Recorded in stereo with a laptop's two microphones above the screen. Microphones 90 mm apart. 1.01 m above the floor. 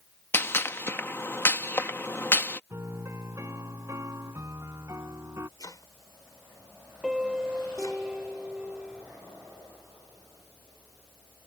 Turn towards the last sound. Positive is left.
turn(degrees=-5)  # may be behind; listen again after turning